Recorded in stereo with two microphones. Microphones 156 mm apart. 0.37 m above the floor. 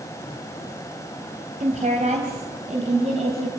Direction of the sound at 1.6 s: 50° right (ahead or behind).